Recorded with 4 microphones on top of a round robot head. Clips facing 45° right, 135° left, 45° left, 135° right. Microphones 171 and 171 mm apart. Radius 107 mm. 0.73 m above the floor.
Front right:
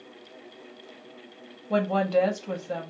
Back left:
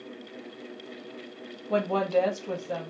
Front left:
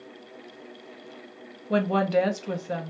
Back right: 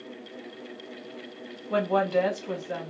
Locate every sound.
1.7 s a woman speaking: 50° left, 1.0 m